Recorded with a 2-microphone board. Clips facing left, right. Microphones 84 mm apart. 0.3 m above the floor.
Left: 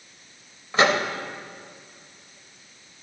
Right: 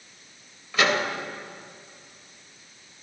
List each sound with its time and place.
0.7 s a microwave: 30° left (ahead or behind), 0.8 m